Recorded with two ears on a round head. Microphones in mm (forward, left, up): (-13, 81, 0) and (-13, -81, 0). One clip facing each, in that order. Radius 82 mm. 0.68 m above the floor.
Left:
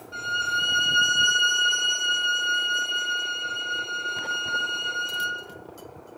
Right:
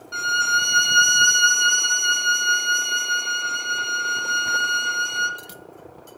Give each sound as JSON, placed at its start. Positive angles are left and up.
{"t": 0.1, "sound": "a violin", "side_deg": -75, "distance_m": 1.7}